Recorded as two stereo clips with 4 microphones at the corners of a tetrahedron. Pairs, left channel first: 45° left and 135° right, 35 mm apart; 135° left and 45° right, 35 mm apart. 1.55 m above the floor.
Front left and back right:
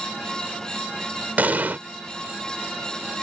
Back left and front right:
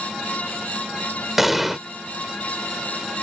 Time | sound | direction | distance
1.4 | an explosion | 125° right | ?